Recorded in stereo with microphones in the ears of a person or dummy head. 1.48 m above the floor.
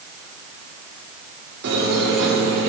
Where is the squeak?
60° right (ahead or behind), 1.7 m.